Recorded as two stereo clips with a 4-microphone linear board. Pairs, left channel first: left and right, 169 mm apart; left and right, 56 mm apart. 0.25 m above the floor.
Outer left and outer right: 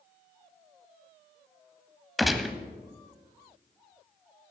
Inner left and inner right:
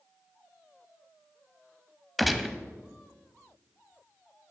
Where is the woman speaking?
No woman speaking in this recording.